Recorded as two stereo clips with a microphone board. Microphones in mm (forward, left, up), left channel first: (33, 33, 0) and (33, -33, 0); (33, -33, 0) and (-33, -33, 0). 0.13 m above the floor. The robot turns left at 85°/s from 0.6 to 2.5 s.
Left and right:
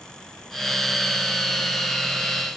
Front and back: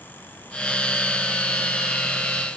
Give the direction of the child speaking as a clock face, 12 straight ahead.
I don't hear a child speaking.